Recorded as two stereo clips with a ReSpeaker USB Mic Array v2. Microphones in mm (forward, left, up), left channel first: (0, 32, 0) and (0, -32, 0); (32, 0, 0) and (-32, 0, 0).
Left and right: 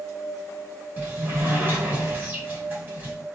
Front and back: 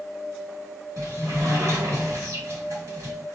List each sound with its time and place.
1.0 s a sliding door: 150° right, 1.5 m